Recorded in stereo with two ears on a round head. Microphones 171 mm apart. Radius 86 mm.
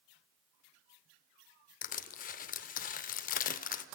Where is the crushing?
45° left (ahead or behind), 0.8 m.